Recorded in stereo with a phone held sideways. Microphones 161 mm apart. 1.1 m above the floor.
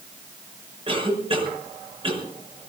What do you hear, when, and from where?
0.9 s a cough: 35° right (ahead or behind), 6 m